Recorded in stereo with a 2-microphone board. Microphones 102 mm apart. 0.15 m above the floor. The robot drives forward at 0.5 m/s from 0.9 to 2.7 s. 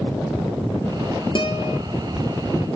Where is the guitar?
55° left (ahead or behind), 3 m.